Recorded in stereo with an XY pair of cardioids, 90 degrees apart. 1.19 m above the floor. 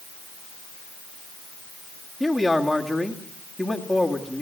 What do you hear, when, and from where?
2.2 s a man speaking: 5° right, 2.0 m